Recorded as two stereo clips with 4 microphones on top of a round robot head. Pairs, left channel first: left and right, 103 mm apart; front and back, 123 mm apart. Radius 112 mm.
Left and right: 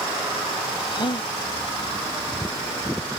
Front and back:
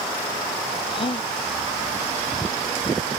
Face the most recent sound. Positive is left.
turn(degrees=50)